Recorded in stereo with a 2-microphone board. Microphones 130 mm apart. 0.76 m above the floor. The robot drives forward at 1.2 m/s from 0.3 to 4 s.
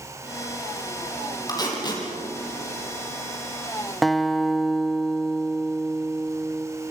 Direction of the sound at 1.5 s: 30° left (ahead or behind).